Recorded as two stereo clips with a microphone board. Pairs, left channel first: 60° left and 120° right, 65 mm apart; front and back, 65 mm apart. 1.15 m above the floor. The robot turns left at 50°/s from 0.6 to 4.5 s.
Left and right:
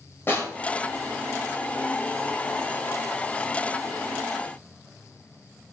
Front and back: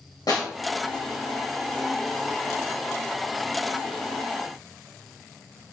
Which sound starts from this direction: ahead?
A snare drum, at 0.3 s.